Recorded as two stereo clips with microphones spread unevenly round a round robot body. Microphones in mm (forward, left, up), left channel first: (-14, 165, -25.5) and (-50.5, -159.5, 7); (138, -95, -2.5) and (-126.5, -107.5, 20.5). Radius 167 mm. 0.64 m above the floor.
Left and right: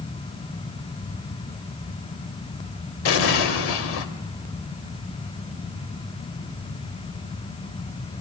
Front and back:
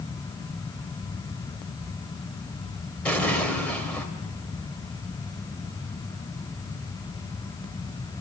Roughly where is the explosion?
Left.